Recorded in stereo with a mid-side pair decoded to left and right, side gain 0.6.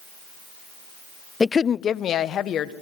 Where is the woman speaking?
15° left, 0.5 m; by 2.7 s 55° left, 1.8 m.